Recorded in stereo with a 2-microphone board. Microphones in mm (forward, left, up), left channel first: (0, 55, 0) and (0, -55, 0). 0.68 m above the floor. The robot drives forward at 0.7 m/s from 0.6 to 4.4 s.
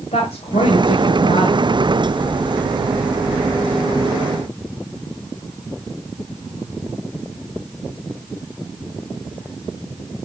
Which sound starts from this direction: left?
A woman speaking, at 0.1 s.